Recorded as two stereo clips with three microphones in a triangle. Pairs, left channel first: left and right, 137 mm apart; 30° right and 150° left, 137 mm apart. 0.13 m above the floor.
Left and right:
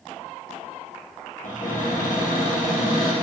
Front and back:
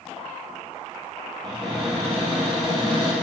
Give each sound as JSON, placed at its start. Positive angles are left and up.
{"t": 1.4, "sound": "a cupboard door", "azimuth_deg": 100, "distance_m": 3.0}